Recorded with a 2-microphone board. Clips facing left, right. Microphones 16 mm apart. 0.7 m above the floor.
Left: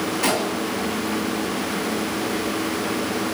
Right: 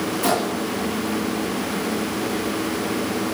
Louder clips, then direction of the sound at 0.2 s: Right 1 dB; 30° left (ahead or behind).